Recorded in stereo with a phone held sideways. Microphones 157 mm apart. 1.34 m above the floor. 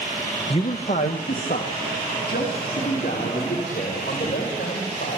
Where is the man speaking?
35° left (ahead or behind), 0.9 m; by 5.2 s 80° left, 7 m.